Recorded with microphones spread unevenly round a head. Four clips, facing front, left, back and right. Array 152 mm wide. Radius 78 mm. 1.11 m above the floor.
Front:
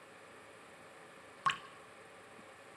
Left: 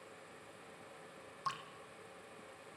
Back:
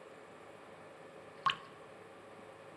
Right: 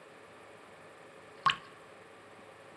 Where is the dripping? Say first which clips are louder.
Right 11 dB, even; 65° right, 0.8 m.